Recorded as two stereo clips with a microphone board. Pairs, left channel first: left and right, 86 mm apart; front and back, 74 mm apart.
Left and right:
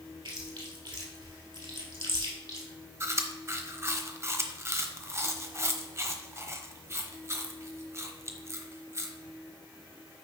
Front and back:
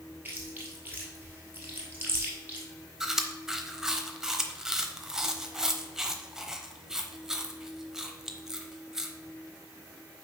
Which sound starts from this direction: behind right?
Chewing, at 0.2 s.